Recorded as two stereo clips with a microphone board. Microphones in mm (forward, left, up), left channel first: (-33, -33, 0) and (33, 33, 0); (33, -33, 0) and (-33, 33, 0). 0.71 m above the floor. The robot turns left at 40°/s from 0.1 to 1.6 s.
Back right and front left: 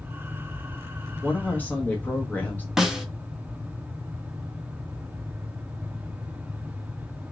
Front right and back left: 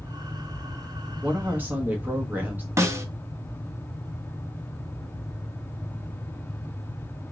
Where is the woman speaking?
165° right, 0.9 m; by 2.7 s straight behind, 0.9 m.